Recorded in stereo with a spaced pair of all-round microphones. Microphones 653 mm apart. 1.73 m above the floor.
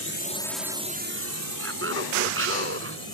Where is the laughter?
20° right (ahead or behind).